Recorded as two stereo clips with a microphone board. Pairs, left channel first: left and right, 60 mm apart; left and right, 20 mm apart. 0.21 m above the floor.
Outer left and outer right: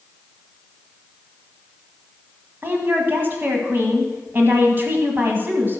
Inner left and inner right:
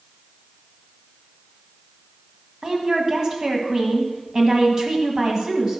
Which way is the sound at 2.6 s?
35° right (ahead or behind).